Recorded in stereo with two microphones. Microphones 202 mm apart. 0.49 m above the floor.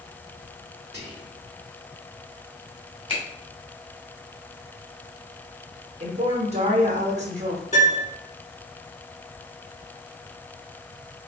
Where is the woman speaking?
35° right (ahead or behind), 0.8 m.